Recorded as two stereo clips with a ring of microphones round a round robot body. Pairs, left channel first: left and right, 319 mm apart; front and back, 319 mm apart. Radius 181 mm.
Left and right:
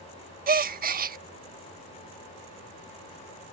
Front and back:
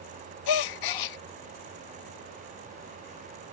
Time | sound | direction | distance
0.5 | a gasp | 25° right | ?